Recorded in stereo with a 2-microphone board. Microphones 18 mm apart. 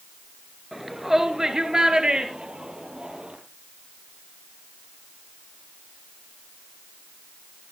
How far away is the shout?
About 2.5 m.